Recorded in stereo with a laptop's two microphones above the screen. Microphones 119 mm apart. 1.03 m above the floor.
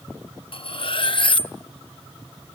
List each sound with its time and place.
0.5 s cutlery clinking: 50° left (ahead or behind), 0.6 m